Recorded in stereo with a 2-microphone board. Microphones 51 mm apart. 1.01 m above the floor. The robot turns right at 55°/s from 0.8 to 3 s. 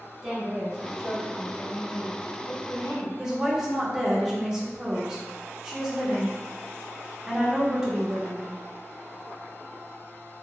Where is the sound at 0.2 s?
5° right, 1.4 m; by 3.1 s 115° left, 1.4 m.